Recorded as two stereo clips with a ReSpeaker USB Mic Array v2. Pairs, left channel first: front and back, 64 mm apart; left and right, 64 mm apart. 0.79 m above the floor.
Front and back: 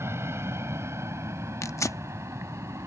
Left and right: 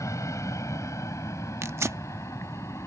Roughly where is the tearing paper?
Ahead right.